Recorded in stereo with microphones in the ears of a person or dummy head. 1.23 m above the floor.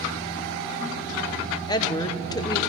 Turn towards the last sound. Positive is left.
turn(degrees=20)  # may be behind; listen again after turning